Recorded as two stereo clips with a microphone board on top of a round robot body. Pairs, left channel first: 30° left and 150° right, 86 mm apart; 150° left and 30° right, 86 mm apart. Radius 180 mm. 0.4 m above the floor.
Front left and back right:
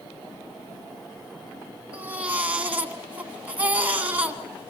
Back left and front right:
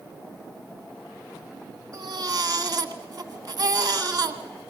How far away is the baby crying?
About 2 m.